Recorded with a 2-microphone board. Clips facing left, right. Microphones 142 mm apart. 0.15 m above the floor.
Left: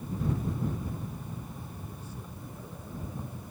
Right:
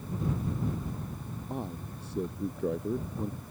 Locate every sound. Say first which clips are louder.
1.5 s a man speaking: right 7 dB; 75° right (ahead or behind)